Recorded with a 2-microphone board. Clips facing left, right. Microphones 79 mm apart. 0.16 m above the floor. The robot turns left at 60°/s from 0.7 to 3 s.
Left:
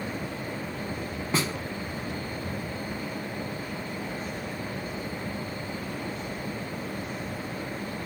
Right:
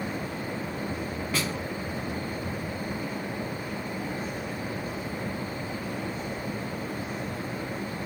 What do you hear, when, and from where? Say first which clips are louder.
1.3 s a snare drum: left 3 dB; 30° left (ahead or behind), 1.0 m; by 1.5 s 25° left (ahead or behind), 1.0 m